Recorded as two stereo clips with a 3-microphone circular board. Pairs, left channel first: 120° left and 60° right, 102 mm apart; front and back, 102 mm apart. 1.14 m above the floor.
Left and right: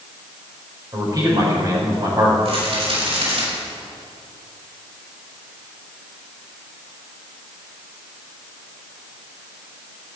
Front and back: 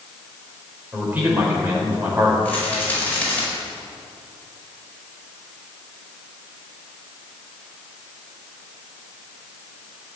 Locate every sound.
0.9 s a man speaking: 110° right, 4.5 m
2.5 s a rattle: 75° right, 5 m